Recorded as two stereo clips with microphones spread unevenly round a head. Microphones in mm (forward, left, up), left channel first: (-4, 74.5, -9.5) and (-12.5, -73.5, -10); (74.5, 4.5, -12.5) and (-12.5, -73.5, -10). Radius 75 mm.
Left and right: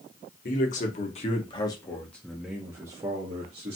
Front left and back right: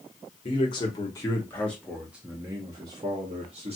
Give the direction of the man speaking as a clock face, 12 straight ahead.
9 o'clock.